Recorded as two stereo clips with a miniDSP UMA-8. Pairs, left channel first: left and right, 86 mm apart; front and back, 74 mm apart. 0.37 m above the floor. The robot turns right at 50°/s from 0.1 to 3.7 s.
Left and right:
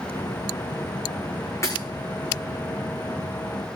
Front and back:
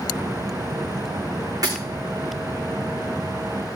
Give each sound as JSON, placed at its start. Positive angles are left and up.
{"t": 1.6, "sound": "breaking glass", "azimuth_deg": 145, "distance_m": 5.0}